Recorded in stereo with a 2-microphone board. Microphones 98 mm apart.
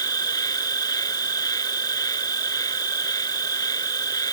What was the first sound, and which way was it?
An insect, 40° left (ahead or behind).